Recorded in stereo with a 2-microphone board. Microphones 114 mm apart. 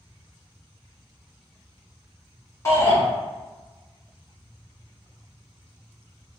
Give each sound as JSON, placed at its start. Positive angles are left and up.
{"t": 2.6, "sound": "a shout", "side_deg": 30, "distance_m": 1.5}